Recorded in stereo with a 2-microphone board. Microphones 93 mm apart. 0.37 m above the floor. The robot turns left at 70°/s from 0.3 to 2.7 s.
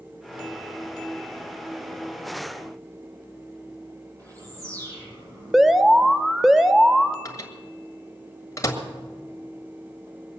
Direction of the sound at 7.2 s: 35° left (ahead or behind).